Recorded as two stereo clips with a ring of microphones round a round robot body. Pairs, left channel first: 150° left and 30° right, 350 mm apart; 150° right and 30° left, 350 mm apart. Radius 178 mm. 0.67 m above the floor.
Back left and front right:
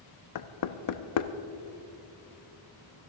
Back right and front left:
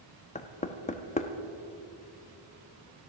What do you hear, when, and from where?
0.3 s knocking: 145° left, 0.7 m